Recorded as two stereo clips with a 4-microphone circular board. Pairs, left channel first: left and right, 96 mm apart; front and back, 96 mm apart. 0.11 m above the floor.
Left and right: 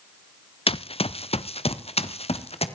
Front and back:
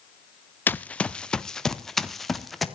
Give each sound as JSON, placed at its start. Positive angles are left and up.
{"t": 0.7, "sound": "running footsteps", "azimuth_deg": 70, "distance_m": 0.6}